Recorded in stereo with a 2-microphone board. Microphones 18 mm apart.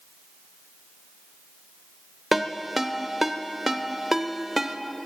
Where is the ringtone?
15° right (ahead or behind), 0.8 m.